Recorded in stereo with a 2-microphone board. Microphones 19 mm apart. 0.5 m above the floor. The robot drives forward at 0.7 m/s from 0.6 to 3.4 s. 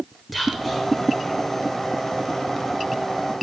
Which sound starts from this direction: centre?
Whispering, at 0.3 s.